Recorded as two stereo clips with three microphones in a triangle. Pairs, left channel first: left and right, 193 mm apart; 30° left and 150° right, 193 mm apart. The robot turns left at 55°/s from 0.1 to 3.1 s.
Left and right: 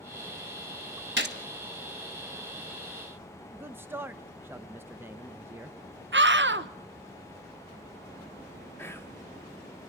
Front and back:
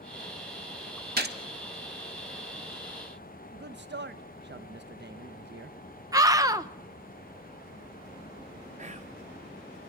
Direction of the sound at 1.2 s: 110° right.